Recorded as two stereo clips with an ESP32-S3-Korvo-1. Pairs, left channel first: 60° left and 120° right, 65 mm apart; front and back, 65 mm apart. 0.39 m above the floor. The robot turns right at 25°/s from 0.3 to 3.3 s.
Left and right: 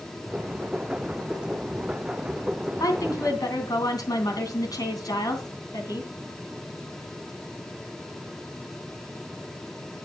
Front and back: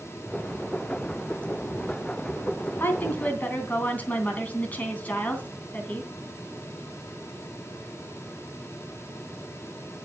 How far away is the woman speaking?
About 2.5 m.